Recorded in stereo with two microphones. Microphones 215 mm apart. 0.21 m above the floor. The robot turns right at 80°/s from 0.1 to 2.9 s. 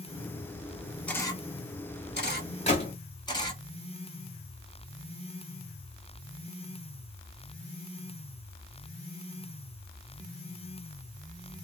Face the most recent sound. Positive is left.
turn(degrees=30)  # may be behind; listen again after turning